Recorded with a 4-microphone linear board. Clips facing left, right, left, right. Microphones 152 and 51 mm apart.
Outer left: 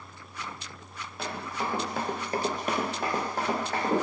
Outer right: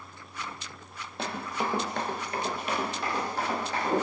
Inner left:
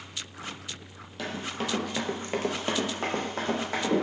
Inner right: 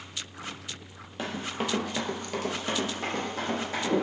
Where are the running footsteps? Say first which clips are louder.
Outer right 2 dB, inner right 1 dB; 30° right (ahead or behind), 1.0 m; by 3.9 s 45° left (ahead or behind), 1.9 m.